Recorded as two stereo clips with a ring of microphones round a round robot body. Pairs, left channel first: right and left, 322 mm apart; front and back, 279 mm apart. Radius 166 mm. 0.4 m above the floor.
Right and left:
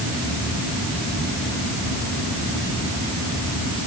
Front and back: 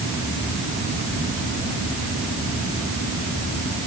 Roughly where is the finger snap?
No finger snap in this recording.